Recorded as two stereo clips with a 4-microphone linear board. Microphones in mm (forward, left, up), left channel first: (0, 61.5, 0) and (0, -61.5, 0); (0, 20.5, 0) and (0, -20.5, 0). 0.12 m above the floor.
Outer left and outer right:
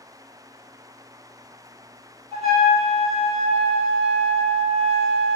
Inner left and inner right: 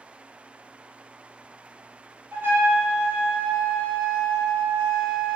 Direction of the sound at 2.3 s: 60° right (ahead or behind).